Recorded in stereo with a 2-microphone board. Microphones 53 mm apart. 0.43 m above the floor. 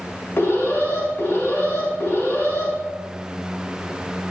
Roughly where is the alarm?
Left.